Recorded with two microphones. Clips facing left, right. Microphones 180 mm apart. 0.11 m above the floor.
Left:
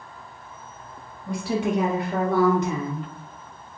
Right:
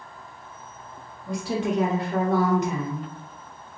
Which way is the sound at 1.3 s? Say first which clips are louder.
Left 1 dB; 5° right (ahead or behind).